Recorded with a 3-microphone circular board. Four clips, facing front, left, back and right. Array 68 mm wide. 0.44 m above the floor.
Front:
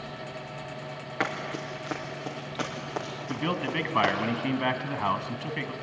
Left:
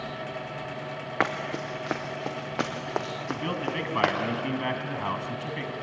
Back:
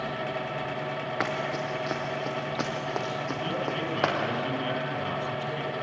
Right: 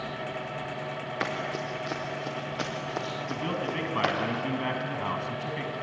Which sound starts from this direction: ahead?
A man speaking, at 3.3 s.